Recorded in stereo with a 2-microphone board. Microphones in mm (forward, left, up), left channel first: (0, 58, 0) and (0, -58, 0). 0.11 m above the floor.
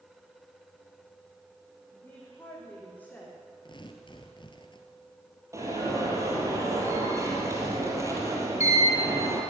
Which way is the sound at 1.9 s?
20° left (ahead or behind).